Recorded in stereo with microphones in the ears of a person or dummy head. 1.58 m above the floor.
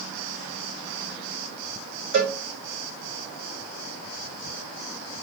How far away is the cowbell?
About 2.5 m.